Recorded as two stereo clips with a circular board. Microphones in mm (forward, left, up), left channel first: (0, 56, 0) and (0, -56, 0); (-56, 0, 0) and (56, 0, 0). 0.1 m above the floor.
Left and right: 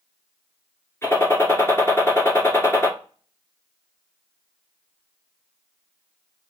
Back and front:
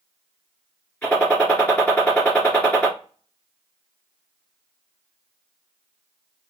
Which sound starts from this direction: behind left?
A gunshot, at 1.0 s.